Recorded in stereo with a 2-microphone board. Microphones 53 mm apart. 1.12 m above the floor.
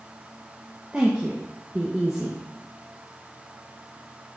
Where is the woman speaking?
15° right (ahead or behind), 1.4 m.